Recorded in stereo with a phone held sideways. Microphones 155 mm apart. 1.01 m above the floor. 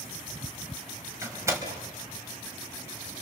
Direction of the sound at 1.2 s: 20° right (ahead or behind).